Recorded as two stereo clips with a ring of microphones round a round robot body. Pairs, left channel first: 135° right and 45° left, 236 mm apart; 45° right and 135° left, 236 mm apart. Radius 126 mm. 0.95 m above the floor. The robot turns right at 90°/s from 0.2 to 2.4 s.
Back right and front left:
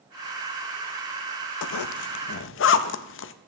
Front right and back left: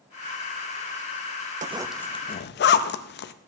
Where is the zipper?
165° right, 0.6 m; by 3.3 s 95° right, 0.6 m.